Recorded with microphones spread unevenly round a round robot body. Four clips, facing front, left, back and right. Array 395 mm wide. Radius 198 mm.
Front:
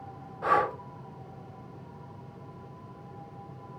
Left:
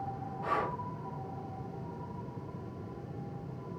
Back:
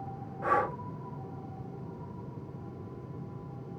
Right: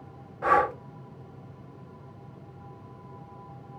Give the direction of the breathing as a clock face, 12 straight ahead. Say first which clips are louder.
Right 10 dB, front 3 dB; 3 o'clock.